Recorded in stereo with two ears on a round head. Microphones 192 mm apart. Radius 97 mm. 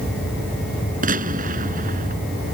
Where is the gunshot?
40° right (ahead or behind).